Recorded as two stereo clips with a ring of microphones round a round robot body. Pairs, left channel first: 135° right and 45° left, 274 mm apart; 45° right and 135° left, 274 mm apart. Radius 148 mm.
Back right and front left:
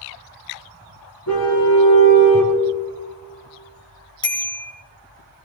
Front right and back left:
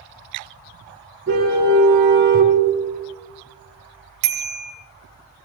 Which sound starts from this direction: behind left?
A bicycle bell, at 4.2 s.